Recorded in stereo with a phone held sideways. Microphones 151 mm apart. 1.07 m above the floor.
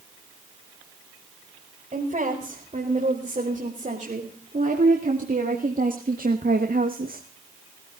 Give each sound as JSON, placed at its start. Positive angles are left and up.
{"t": 1.9, "sound": "a woman speaking", "side_deg": -50, "distance_m": 4.5}